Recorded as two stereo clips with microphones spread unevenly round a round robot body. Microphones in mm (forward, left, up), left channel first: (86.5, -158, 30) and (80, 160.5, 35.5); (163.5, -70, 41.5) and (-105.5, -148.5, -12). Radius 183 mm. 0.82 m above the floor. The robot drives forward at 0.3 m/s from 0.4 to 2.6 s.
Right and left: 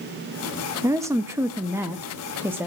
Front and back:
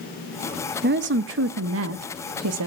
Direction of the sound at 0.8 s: 170° left.